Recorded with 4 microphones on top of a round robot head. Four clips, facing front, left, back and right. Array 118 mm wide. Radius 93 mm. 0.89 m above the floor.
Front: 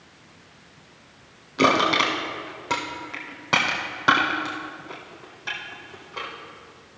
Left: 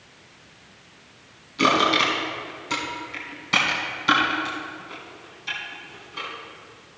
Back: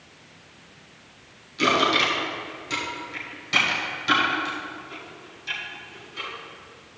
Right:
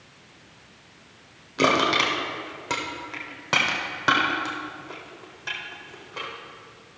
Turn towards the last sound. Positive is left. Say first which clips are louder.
# left 1 dB, front 2 dB
turn(degrees=-40)